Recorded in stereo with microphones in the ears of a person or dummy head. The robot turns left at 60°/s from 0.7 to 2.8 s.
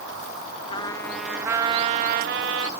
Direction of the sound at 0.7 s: 30° left.